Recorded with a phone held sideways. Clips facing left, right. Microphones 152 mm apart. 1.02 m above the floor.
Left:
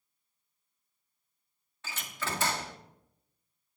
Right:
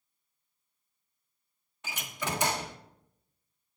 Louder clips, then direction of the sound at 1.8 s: Right 2 dB; 15° right (ahead or behind).